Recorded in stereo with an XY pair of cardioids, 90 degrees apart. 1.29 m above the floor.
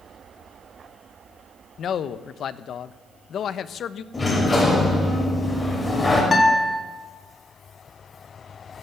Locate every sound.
1.8 s a man speaking: 70° left, 0.8 m
4.1 s a sliding door: 35° left, 5.5 m
6.3 s a guitar: 40° left, 3 m